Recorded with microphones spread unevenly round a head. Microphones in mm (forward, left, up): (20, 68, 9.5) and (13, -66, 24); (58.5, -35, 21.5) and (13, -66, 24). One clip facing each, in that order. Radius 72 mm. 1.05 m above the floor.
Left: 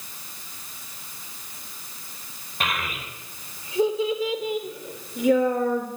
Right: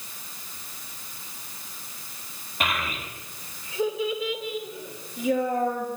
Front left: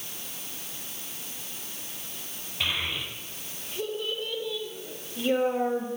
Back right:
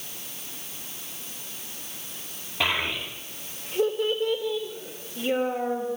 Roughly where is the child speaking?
Behind.